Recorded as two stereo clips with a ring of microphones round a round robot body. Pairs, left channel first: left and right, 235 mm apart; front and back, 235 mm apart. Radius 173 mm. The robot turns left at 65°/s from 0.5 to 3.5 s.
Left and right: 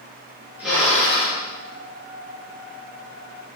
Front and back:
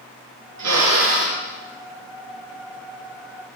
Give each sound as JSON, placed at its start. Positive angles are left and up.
{"t": 0.6, "sound": "a drill", "azimuth_deg": -175, "distance_m": 4.5}